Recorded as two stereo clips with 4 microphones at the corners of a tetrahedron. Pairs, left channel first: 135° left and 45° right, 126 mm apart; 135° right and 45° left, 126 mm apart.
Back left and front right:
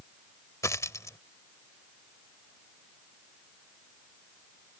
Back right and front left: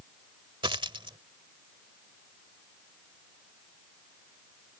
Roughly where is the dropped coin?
Left.